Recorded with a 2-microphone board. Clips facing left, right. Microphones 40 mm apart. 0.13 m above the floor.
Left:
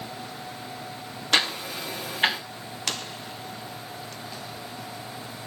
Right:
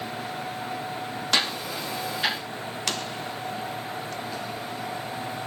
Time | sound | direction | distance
1.3 | ticking | 40° left (ahead or behind) | 5.5 m